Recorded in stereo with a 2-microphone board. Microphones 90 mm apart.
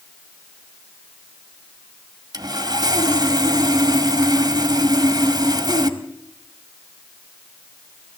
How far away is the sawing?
About 1.9 m.